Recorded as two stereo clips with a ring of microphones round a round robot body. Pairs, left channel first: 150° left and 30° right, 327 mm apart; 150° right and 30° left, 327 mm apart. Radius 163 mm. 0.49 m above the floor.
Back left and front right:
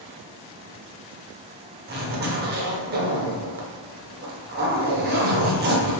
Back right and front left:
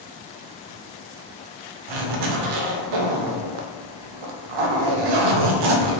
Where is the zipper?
30° left, 0.5 m.